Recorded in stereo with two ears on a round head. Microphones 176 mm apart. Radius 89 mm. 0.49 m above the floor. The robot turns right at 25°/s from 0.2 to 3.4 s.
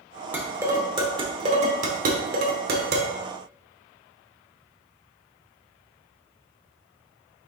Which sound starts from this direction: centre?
Dishes clattering, at 0.3 s.